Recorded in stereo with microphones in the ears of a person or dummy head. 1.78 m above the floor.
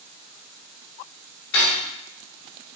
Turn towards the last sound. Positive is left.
turn(degrees=45)  # may be behind; listen again after turning